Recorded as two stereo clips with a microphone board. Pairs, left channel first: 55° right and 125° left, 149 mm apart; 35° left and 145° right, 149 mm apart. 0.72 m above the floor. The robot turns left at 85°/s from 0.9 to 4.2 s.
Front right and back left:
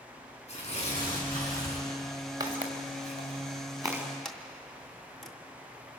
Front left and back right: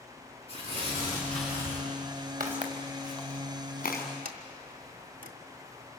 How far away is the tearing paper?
About 8.5 m.